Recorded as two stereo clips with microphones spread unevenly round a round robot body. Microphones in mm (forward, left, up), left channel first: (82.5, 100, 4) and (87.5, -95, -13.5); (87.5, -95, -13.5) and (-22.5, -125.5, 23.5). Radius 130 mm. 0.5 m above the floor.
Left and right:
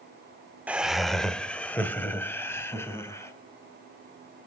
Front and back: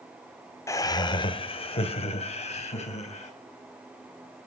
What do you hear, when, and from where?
0.7 s laughter: 15° right, 1.3 m; by 3.3 s 15° left, 4.5 m